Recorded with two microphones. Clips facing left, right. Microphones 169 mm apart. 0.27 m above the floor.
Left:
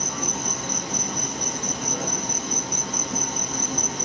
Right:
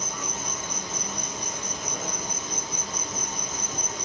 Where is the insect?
70° left (ahead or behind), 1.1 m.